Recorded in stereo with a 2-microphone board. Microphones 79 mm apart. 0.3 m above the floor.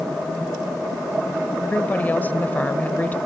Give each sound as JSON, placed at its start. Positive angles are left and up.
{"t": 1.6, "sound": "a woman speaking", "side_deg": 20, "distance_m": 0.9}